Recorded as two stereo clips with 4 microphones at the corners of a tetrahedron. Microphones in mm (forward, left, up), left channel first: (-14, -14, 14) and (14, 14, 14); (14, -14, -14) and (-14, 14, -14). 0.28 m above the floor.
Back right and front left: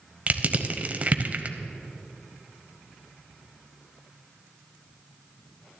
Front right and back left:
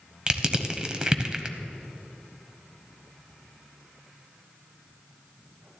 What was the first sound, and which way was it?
Crushing, 75° left.